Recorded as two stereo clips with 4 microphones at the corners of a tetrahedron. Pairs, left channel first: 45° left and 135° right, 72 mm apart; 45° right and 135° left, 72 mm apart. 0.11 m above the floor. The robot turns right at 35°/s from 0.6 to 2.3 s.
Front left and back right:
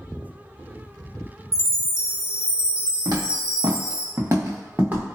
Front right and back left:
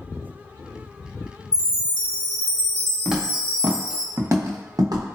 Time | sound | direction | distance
1.5 | a chime | 135° left | 1.4 m
3.0 | footsteps | 140° right | 1.2 m